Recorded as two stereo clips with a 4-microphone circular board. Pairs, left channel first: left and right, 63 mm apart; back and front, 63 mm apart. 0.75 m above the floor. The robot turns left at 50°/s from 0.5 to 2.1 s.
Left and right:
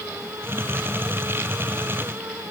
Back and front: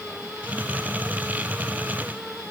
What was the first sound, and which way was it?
Only background noise.